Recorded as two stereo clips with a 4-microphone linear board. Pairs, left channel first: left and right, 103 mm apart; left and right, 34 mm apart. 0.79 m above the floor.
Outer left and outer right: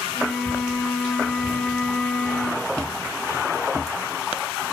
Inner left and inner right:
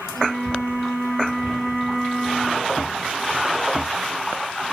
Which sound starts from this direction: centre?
A flute, at 0.1 s.